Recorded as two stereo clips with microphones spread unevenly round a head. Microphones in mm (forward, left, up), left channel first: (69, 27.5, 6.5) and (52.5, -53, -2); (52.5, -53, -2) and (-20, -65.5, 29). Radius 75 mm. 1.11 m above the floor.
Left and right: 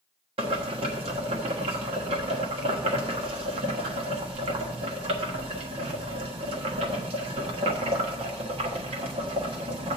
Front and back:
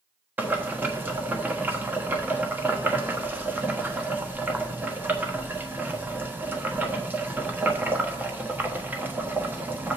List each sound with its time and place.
0.4 s boiling: 105° right, 1.2 m